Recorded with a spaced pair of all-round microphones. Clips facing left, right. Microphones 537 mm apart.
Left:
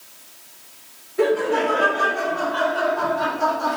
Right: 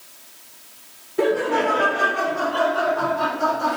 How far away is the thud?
No thud in this recording.